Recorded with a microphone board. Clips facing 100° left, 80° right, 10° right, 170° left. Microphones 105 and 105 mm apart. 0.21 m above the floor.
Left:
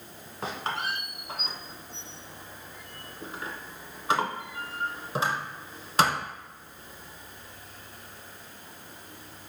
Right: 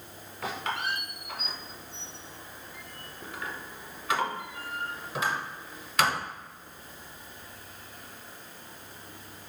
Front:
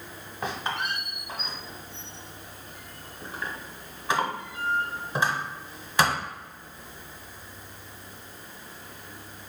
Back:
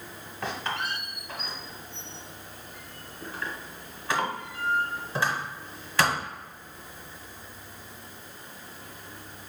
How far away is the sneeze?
No sneeze in this recording.